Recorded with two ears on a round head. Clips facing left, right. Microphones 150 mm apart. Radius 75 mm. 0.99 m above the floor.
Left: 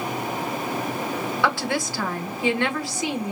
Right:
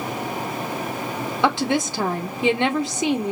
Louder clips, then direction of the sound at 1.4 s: Right 6 dB; 20° right (ahead or behind).